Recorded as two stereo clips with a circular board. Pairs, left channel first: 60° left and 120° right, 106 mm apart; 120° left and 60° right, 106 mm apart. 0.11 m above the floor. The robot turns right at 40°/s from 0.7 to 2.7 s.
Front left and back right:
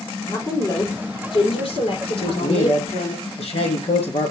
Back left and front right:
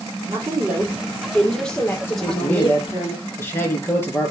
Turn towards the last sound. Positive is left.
turn(degrees=55)